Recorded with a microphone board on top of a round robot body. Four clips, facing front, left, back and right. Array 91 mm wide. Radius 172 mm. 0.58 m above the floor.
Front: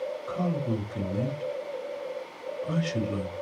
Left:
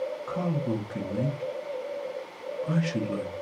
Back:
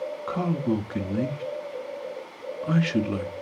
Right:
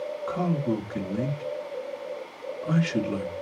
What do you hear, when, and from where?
0.3 s a man speaking: 170° right, 1.6 m